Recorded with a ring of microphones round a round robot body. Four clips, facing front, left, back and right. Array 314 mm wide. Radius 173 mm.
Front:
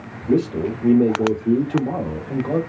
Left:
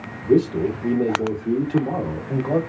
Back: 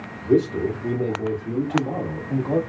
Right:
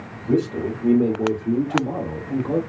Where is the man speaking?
15° right, 1.7 m; by 2.6 s 60° left, 1.7 m.